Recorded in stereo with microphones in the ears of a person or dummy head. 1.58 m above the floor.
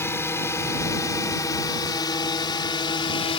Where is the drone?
15° left (ahead or behind); by 3.4 s 35° left (ahead or behind).